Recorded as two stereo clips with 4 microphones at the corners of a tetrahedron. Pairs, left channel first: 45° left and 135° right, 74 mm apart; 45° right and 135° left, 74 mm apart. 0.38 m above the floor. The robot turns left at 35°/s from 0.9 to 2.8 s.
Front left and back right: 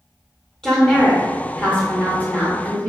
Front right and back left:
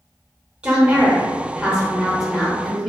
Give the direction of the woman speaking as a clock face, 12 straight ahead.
9 o'clock.